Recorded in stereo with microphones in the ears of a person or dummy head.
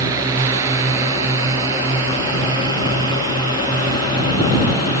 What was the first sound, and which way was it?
A drone, 15° right (ahead or behind).